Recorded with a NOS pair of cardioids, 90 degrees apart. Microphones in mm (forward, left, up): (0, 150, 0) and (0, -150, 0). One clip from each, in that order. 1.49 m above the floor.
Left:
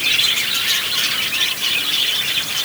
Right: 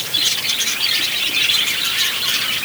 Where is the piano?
No piano in this recording.